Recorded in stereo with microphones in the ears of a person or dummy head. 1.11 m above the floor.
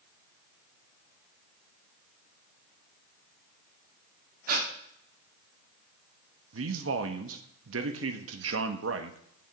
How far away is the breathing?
About 1.8 m.